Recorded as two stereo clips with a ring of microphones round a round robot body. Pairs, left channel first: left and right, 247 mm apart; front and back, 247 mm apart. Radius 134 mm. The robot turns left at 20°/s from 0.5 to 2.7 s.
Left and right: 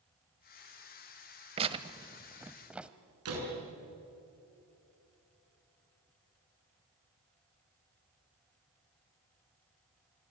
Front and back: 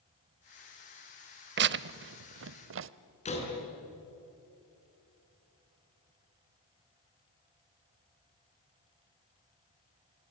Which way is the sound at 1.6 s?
150° right.